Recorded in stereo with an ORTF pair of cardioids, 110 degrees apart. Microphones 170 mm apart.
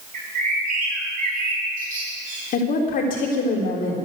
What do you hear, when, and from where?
0.1 s a bird: 55° right, 5.5 m
2.5 s a woman speaking: 55° left, 3.5 m